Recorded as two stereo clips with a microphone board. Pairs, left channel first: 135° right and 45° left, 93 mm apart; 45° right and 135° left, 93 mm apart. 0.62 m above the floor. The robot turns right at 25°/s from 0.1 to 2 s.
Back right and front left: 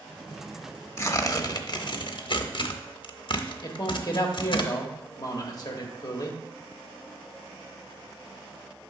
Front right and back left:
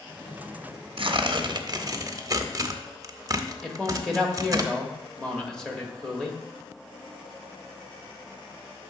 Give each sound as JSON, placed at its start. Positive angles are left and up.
{"t": 1.0, "sound": "tearing paper", "azimuth_deg": 165, "distance_m": 0.6}
{"t": 3.6, "sound": "a man speaking", "azimuth_deg": -125, "distance_m": 1.1}